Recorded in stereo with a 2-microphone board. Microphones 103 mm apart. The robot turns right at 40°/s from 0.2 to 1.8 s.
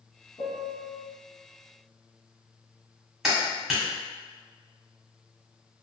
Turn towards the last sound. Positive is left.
turn(degrees=-5)  # may be behind; listen again after turning